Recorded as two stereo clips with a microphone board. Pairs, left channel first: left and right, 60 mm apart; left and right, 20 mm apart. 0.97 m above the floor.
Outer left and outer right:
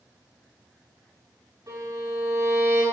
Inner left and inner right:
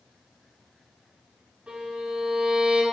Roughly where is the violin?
Right.